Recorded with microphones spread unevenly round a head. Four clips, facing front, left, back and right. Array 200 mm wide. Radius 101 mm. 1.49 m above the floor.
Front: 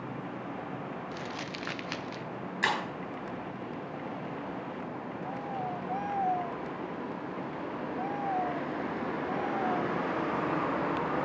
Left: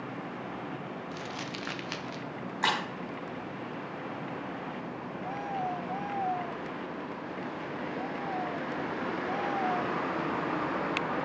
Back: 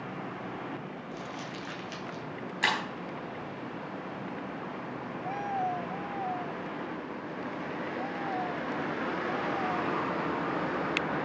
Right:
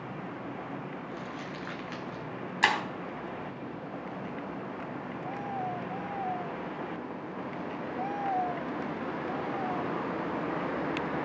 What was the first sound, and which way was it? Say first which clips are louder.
Crumpling: even, front 1 dB; 40° left.